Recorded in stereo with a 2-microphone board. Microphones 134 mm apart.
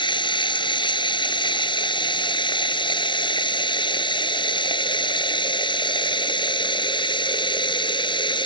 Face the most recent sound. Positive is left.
turn(degrees=35)  # may be behind; listen again after turning